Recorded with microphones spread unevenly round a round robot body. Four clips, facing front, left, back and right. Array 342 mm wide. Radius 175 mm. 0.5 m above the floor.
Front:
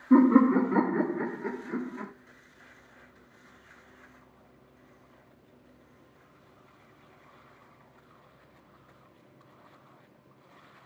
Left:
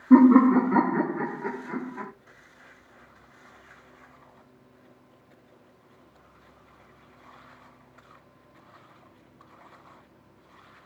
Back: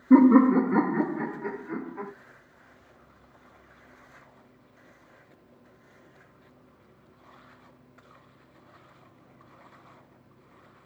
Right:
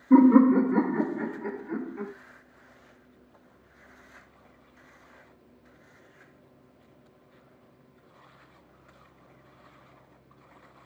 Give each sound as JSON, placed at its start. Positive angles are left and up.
{"t": 0.1, "sound": "laughter", "azimuth_deg": 125, "distance_m": 1.3}